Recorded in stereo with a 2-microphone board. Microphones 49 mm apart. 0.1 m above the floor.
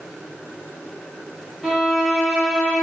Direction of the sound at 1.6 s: 10° right (ahead or behind).